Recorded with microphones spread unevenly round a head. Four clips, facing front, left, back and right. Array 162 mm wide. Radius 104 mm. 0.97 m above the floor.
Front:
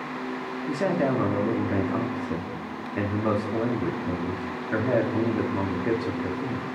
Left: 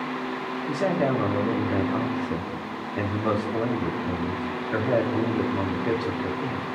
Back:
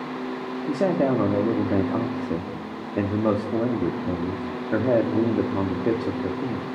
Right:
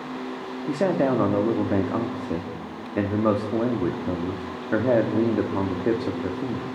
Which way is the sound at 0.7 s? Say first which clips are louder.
Right 3 dB, back 3 dB; 140° right.